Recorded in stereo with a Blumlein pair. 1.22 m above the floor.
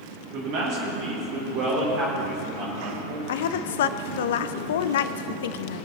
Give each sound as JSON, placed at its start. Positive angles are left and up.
{"t": 0.3, "sound": "a man speaking", "azimuth_deg": -40, "distance_m": 2.5}
{"t": 3.3, "sound": "a woman speaking", "azimuth_deg": 60, "distance_m": 0.6}